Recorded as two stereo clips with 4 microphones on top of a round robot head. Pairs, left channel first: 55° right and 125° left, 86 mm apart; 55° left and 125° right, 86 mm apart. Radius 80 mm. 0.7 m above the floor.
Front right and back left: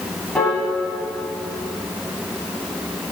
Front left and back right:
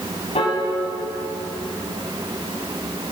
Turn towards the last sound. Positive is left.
turn(degrees=25)